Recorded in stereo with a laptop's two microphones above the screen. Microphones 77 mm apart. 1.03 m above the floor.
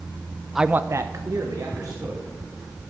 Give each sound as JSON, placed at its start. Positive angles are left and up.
{"t": 0.6, "sound": "a man speaking", "side_deg": -5, "distance_m": 0.5}